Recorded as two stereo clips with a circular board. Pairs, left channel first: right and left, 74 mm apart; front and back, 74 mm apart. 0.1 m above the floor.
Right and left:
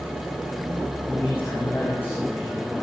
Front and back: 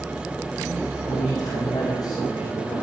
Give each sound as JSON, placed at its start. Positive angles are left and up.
{"t": 1.1, "sound": "a man speaking", "azimuth_deg": -25, "distance_m": 7.0}